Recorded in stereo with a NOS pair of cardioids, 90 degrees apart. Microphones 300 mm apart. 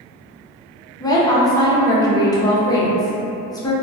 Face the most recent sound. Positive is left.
turn(degrees=15)